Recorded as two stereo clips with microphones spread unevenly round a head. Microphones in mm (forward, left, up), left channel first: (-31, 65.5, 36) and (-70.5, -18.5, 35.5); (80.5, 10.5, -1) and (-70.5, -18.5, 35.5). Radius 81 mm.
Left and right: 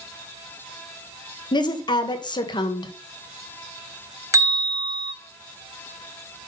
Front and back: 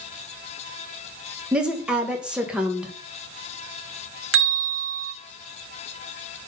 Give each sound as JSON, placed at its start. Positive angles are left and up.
{"t": 1.5, "sound": "a woman speaking", "azimuth_deg": 105, "distance_m": 1.4}
{"t": 4.3, "sound": "a bell", "azimuth_deg": -170, "distance_m": 2.5}